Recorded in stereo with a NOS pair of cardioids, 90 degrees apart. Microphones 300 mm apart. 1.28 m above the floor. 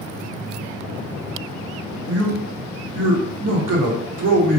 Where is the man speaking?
55° right, 1.2 m.